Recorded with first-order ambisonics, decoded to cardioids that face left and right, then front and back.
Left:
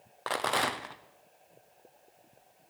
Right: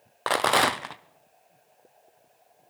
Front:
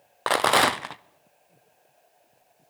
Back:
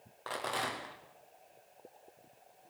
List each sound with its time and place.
0.3 s a rattle: 30° right, 0.6 m